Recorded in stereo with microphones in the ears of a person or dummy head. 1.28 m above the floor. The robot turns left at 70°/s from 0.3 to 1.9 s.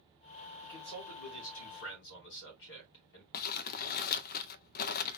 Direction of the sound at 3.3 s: 55° left (ahead or behind).